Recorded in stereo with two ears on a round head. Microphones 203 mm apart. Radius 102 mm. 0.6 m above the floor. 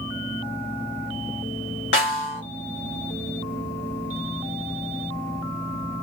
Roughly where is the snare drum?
Left.